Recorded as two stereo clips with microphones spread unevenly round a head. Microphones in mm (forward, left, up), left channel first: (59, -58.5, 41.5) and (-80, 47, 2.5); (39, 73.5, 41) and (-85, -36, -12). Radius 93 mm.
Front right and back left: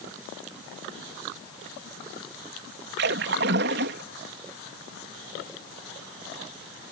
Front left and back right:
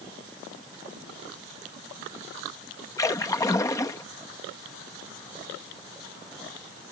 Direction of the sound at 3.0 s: 105° left.